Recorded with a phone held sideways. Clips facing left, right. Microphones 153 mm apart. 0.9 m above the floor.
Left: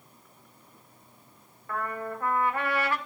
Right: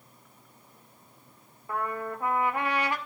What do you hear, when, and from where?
1.7 s a trumpet: 15° right (ahead or behind), 1.8 m